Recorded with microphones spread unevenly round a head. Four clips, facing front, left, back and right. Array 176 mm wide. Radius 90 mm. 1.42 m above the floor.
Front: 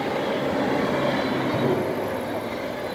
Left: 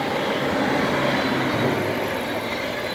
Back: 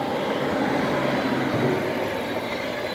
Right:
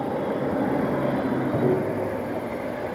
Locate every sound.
1.5 s tapping: 175° left, 7 m